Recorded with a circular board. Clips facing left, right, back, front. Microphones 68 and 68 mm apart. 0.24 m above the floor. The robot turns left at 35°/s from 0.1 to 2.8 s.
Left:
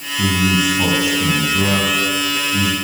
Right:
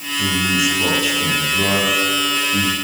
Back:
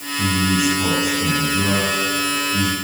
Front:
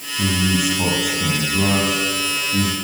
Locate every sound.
0.2 s a man speaking: 55° left, 5.5 m; by 2.8 s 35° right, 5.5 m